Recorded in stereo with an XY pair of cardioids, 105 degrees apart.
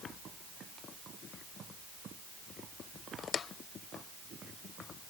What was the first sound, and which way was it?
Only background noise.